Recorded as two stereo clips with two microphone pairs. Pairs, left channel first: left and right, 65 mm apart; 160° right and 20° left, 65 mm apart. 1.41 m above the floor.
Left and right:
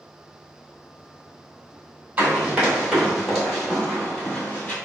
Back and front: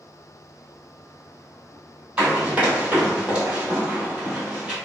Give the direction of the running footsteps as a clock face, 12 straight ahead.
1 o'clock.